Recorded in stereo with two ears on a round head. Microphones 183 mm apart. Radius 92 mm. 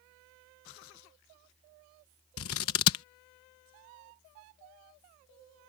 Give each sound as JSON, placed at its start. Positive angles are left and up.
{"t": 2.4, "sound": "scissors", "side_deg": 80}